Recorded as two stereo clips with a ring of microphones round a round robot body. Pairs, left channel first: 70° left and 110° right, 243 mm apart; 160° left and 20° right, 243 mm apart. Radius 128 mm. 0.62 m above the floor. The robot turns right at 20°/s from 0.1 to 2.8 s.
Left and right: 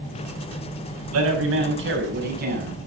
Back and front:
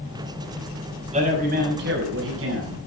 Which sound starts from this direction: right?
A man speaking, at 1.1 s.